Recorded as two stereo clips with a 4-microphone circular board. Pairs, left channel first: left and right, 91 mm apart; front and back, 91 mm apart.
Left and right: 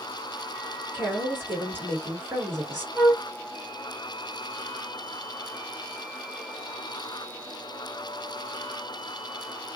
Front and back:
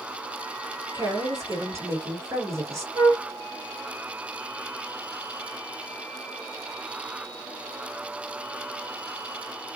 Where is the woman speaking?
145° right, 2.0 m.